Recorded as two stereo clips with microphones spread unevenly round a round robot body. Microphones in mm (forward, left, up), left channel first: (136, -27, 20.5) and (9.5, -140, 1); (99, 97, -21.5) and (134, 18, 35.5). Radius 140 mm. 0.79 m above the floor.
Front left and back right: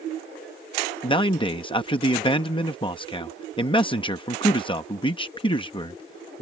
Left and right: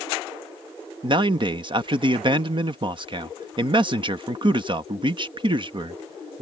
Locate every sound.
1.0 s a man speaking: 10° right